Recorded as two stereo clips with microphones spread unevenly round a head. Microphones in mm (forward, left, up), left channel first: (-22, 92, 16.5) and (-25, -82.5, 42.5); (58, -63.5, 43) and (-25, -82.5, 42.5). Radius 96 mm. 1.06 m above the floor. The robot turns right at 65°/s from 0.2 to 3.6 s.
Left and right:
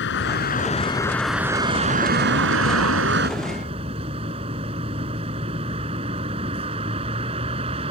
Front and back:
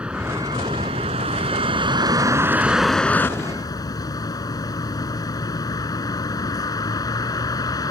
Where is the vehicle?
110° left; by 7.9 s 30° right.